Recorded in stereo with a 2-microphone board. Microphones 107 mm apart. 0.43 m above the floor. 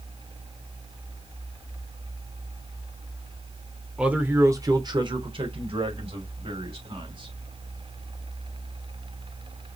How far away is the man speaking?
About 1.1 m.